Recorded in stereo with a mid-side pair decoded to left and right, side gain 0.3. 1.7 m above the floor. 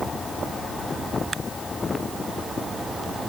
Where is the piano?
I don't hear a piano.